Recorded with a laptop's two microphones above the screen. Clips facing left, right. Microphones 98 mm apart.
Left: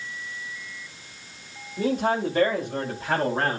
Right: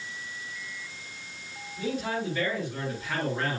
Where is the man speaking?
65° left (ahead or behind), 3 m; by 3.6 s 60° left (ahead or behind), 4.5 m.